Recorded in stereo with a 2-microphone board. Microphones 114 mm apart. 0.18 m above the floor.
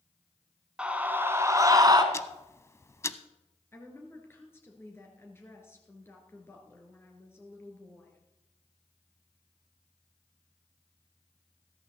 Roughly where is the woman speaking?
Left.